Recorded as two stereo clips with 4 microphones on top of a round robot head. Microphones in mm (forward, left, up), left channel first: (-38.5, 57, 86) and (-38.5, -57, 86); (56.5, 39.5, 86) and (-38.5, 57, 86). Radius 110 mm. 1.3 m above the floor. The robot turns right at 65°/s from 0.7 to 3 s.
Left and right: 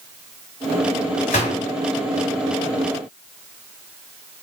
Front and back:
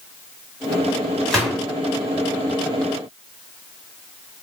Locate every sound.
1.3 s a gunshot: 70° left, 1.1 m; by 1.6 s 90° left, 1.1 m